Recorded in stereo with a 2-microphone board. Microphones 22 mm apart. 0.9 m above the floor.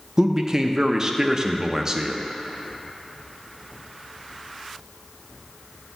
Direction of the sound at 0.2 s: 25° right (ahead or behind).